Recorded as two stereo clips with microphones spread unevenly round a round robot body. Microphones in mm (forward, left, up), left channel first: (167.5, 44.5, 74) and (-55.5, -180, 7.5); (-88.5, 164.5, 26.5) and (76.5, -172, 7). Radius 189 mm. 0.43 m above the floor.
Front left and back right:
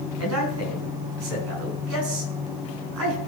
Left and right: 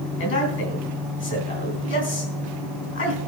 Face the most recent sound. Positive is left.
turn(degrees=175)